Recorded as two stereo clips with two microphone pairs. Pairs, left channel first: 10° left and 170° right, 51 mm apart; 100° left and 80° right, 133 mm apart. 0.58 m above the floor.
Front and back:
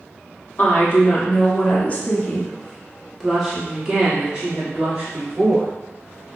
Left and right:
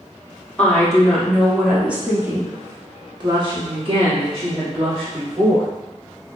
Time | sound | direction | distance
0.6 | a woman speaking | 25° left | 1.4 m